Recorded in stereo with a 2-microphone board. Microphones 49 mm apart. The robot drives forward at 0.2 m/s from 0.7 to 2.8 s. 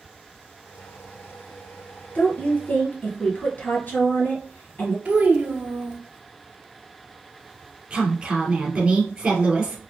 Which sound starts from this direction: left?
A woman speaking, at 2.1 s.